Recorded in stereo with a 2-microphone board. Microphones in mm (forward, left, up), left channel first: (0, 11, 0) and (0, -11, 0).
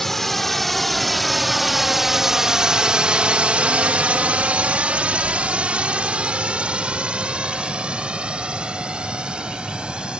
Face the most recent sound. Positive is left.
turn(degrees=-45)  # may be behind; listen again after turning